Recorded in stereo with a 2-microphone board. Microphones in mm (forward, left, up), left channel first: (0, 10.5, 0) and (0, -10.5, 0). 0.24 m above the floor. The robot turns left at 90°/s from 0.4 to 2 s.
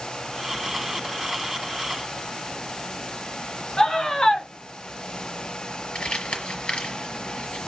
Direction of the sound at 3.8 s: 30° left (ahead or behind).